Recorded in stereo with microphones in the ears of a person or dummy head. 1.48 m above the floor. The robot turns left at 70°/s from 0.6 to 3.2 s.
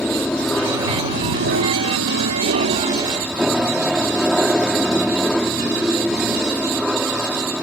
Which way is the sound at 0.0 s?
5° left.